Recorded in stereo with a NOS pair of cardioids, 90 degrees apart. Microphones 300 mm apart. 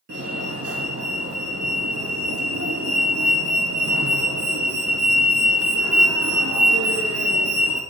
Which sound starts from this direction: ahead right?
A fire alarm, at 0.1 s.